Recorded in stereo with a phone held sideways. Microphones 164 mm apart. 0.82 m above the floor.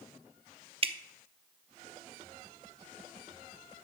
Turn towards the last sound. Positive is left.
turn(degrees=-35)  # may be behind; listen again after turning